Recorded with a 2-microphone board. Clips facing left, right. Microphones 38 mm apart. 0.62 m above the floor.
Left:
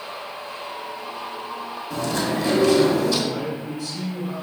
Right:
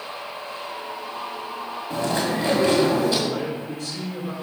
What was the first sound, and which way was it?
Chewing, 35° right (ahead or behind).